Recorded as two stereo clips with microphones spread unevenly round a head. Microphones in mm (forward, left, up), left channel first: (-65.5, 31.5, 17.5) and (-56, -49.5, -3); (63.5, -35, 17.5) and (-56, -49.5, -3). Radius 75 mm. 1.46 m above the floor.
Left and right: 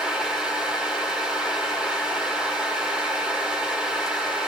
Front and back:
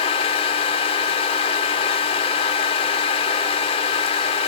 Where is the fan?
15° left, 1.5 m.